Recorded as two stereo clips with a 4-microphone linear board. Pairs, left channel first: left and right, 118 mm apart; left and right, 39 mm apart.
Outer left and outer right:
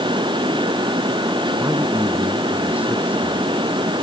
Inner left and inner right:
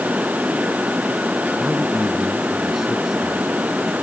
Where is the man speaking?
10° right (ahead or behind).